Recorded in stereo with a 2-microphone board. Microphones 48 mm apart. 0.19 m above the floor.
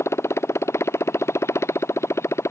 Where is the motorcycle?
80° left.